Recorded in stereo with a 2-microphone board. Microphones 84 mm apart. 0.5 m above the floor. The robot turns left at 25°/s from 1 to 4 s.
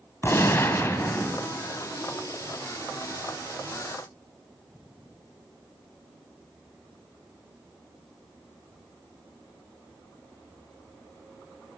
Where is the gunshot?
30° left (ahead or behind), 0.7 m; by 1.5 s 20° left (ahead or behind), 0.7 m.